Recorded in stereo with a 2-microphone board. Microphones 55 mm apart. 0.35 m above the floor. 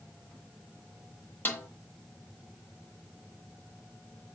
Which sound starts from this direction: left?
A snare drum, at 1.4 s.